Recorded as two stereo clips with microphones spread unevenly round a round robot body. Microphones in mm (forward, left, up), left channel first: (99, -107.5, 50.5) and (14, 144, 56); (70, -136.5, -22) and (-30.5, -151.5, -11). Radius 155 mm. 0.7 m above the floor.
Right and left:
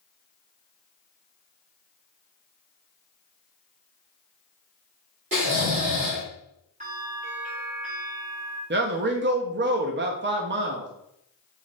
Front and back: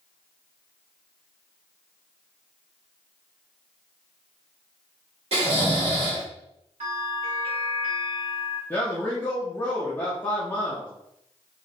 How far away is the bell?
About 2 m.